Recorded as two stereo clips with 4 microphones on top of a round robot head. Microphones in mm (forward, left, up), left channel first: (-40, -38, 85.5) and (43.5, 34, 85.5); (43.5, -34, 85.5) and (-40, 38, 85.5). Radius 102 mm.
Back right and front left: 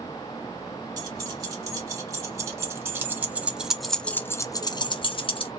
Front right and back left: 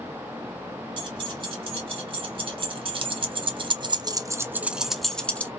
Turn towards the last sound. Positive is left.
turn(degrees=-115)